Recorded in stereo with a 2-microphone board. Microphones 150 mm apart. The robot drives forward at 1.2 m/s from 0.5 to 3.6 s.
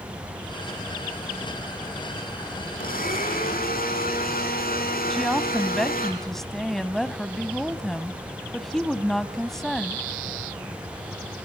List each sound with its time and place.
2.8 s a blender: 75° left (ahead or behind), 6.5 m; by 6.1 s 80° left, 6.5 m
5.1 s a woman speaking: centre (ahead or behind), 1.1 m